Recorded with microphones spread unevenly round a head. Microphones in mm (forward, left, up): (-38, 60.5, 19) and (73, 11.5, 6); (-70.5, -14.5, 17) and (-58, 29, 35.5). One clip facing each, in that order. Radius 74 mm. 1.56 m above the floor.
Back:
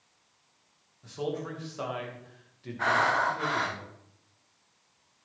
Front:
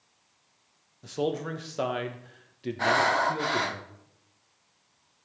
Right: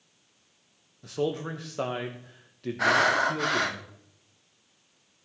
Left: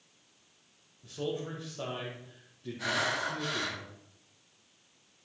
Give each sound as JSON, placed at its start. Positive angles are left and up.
{"t": 1.0, "sound": "a man speaking", "azimuth_deg": -75, "distance_m": 1.2}
{"t": 2.8, "sound": "breathing", "azimuth_deg": -90, "distance_m": 0.7}